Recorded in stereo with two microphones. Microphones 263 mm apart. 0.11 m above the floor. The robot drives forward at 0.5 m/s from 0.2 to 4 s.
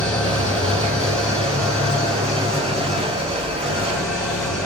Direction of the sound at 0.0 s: 5° left (ahead or behind).